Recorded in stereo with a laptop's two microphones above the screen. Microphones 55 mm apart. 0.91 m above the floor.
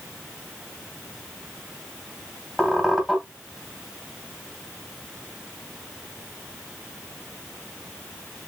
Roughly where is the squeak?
Centre.